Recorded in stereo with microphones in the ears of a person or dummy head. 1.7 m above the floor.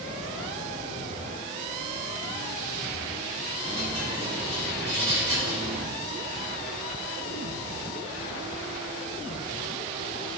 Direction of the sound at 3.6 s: 20° right (ahead or behind).